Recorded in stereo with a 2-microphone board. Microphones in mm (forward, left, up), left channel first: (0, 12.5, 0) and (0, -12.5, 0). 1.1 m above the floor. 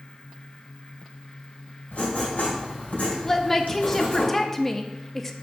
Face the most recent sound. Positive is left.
turn(degrees=15)  # may be behind; listen again after turning